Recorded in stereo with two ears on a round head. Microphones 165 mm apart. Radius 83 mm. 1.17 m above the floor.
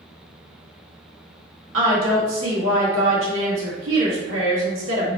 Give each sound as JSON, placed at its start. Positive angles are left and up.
{"t": 1.7, "sound": "a woman speaking", "side_deg": -75, "distance_m": 1.8}